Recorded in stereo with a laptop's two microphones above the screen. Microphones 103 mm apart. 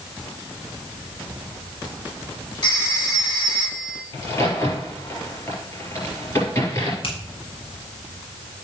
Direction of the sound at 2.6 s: 40° left (ahead or behind).